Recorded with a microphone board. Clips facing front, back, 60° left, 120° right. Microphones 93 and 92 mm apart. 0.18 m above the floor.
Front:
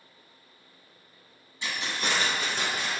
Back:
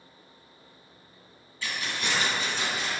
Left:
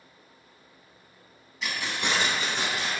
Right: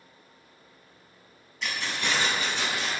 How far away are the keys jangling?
About 0.7 m.